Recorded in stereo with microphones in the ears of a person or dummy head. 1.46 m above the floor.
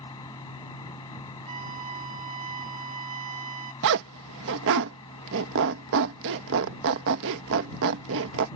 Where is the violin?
25° right (ahead or behind).